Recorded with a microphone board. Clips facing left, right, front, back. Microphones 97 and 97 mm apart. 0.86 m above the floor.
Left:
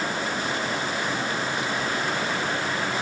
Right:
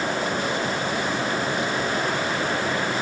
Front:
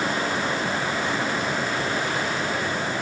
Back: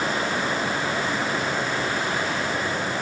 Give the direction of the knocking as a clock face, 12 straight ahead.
No knocking in this recording.